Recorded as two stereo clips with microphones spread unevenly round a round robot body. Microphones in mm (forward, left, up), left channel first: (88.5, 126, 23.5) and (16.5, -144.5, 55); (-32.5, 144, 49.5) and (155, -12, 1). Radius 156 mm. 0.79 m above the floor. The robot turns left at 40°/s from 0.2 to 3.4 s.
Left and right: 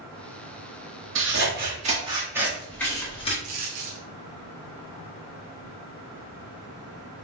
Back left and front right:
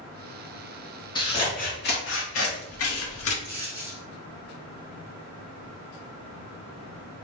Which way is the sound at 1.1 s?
140° right.